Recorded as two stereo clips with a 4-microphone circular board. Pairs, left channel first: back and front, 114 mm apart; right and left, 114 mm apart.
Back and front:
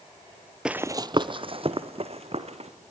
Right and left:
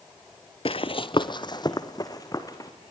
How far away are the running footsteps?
About 0.5 m.